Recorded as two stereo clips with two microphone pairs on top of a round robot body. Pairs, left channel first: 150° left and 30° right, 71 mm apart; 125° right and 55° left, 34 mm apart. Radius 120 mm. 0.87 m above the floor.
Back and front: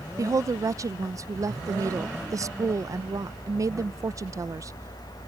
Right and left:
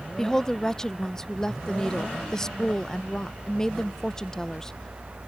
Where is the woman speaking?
40° right.